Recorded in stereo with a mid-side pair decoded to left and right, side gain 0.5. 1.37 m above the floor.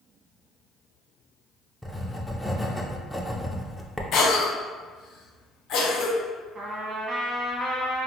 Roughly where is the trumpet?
Ahead right.